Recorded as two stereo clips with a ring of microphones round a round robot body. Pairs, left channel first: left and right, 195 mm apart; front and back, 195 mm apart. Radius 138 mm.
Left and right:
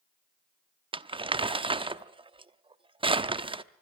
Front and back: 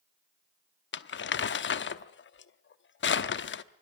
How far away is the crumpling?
About 0.9 m.